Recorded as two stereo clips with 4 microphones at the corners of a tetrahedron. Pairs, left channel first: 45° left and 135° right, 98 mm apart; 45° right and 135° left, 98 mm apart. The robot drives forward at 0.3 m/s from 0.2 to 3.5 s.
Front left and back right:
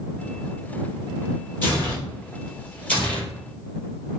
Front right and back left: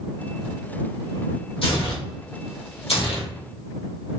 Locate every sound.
1.6 s tearing paper: 25° right, 1.9 m; by 3.3 s 35° right, 1.4 m